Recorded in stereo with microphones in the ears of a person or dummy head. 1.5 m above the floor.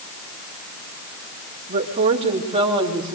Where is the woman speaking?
40° right (ahead or behind), 3 m; by 3.2 s 20° right (ahead or behind), 3 m.